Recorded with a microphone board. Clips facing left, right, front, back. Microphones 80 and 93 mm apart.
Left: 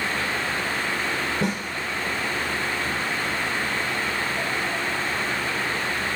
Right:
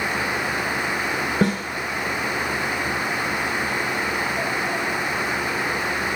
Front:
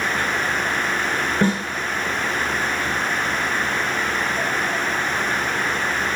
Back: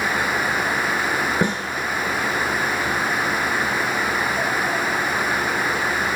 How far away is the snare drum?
About 2 m.